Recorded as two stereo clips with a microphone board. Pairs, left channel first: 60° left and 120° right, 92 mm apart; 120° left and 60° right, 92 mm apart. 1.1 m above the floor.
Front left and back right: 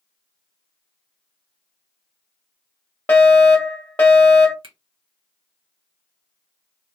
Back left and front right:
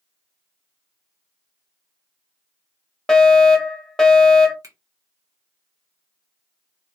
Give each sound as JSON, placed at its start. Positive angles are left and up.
{"t": 3.1, "sound": "a fire alarm", "azimuth_deg": 45, "distance_m": 1.0}
{"t": 4.6, "sound": "a finger snap", "azimuth_deg": -110, "distance_m": 1.0}